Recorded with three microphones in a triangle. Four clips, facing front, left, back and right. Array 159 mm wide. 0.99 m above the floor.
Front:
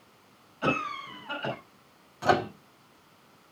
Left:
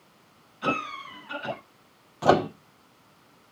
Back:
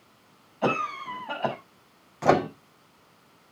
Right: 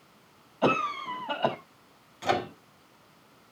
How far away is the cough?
About 6.5 m.